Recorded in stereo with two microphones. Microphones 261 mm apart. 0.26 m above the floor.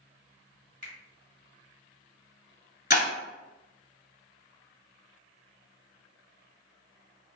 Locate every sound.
0.8 s a finger snap: 30° right (ahead or behind), 1.4 m
2.9 s breaking glass: 40° left (ahead or behind), 1.0 m